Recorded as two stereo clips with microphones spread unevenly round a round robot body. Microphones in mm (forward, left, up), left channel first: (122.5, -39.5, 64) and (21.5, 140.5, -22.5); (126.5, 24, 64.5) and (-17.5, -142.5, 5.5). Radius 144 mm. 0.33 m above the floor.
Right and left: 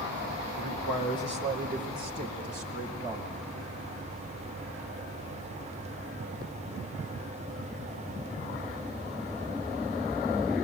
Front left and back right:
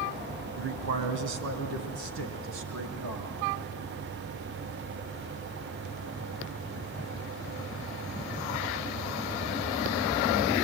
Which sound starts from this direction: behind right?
A man speaking, at 0.6 s.